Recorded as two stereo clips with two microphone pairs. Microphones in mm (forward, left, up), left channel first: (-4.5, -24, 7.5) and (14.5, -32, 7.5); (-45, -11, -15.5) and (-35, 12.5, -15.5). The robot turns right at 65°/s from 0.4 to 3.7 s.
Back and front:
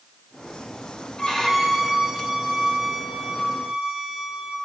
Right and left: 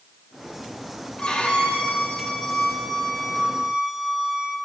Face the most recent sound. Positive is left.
turn(degrees=5)